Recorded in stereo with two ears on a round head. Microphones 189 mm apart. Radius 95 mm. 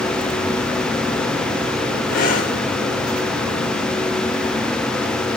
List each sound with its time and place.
2.1 s breathing: 40° left (ahead or behind), 1.6 m